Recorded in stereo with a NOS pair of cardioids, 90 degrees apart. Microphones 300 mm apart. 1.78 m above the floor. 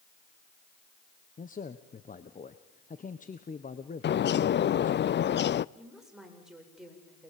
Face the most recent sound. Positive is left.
turn(degrees=0)